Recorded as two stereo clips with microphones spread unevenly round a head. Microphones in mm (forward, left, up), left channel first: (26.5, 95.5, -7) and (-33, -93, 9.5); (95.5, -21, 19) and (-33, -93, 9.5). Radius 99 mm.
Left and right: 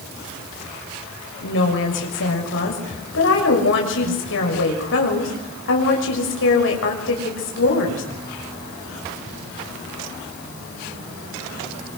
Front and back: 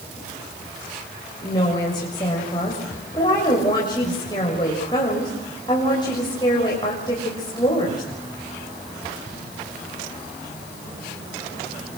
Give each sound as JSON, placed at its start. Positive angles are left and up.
{"t": 1.4, "sound": "a woman speaking", "azimuth_deg": 100, "distance_m": 6.5}